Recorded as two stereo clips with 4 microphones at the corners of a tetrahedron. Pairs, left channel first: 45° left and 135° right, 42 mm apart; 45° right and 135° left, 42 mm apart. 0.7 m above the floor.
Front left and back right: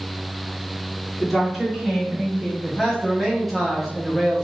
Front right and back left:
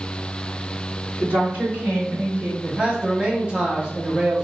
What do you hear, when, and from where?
1.2 s a woman speaking: 130° left, 1.8 m; by 2.5 s 155° left, 2.5 m
2.6 s a man speaking: 125° left, 0.7 m